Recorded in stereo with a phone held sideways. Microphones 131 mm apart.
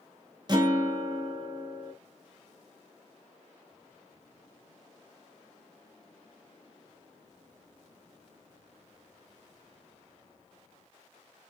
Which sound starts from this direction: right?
A guitar, at 0.5 s.